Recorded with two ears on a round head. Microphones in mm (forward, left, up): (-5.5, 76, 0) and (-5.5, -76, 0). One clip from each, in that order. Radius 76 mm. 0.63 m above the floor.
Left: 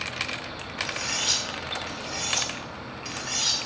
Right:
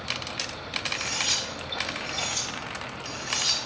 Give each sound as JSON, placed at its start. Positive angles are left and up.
{"t": 0.9, "sound": "cutlery clinking", "side_deg": -10, "distance_m": 1.2}